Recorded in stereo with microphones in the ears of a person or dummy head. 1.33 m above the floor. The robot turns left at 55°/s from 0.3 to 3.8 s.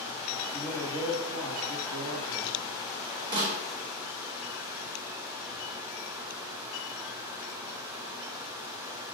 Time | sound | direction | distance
0.5 | a man speaking | 10° left | 1.2 m
3.3 | a snare drum | 30° right (ahead or behind) | 2 m